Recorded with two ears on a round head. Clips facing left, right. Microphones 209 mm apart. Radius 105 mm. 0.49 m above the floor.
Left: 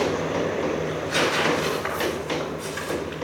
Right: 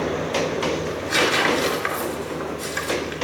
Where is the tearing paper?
40° right (ahead or behind), 3 m.